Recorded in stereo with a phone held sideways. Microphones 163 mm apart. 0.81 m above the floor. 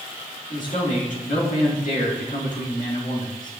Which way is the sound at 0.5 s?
55° left (ahead or behind).